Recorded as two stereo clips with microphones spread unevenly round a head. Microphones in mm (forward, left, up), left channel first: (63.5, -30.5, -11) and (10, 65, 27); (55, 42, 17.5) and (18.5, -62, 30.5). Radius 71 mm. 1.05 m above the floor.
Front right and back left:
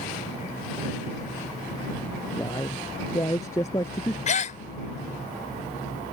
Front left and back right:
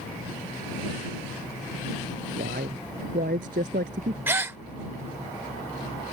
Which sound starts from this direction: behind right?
A man speaking, at 2.4 s.